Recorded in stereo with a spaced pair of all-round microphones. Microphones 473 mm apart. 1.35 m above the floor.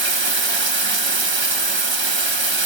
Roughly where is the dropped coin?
I don't hear a dropped coin.